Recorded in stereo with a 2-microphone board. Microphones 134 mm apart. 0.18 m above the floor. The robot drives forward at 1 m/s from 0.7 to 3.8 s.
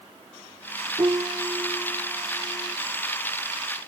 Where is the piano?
35° right (ahead or behind); by 2.8 s 25° right (ahead or behind).